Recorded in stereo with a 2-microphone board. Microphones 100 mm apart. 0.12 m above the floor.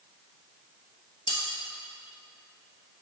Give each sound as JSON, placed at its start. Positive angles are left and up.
{"t": 1.3, "sound": "cutlery clinking", "side_deg": 55, "distance_m": 1.5}